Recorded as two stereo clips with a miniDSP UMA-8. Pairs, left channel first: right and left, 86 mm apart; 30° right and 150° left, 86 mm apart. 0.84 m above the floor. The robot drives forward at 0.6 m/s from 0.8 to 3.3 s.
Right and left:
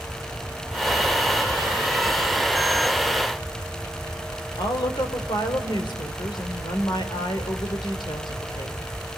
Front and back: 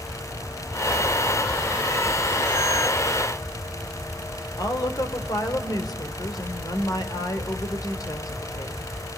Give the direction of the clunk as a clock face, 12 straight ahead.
I don't hear a clunk.